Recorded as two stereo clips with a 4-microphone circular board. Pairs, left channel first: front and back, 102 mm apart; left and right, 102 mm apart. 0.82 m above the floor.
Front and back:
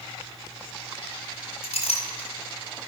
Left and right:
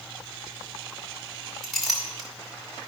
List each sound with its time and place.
1.6 s a clink: straight ahead, 2.0 m